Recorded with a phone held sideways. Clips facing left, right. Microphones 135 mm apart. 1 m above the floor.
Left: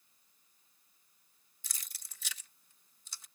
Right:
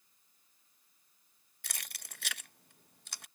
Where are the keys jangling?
70° right (ahead or behind).